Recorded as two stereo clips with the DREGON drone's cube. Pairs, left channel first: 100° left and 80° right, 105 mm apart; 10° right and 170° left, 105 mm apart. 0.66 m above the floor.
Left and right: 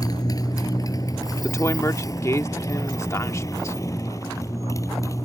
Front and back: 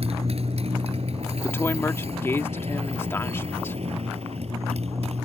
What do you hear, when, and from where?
0.0 s a motorcycle: 155° left; by 5.2 s 160° left
1.4 s a woman speaking: 50° left